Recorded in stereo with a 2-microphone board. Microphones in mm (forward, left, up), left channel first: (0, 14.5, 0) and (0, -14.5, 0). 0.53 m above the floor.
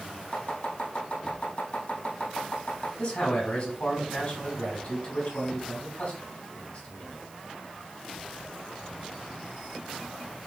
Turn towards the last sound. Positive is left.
turn(degrees=55)  # may be behind; listen again after turning